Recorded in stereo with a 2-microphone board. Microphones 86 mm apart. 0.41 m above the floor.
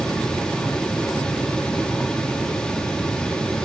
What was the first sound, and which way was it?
Only background noise.